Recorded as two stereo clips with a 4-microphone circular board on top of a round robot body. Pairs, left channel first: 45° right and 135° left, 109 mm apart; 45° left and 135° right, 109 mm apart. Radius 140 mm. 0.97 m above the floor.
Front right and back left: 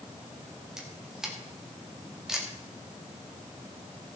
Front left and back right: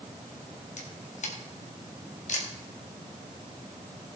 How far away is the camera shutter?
About 1.9 m.